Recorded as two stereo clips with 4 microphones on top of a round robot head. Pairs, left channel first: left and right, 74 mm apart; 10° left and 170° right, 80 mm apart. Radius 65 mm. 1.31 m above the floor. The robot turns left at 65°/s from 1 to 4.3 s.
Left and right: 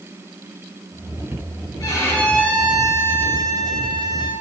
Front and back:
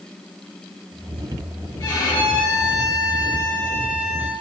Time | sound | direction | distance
1.8 | a violin | 45° left | 5 m